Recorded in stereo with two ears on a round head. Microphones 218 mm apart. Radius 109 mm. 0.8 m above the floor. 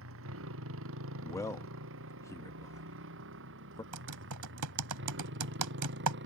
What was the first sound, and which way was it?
A motorcycle, 55° right (ahead or behind).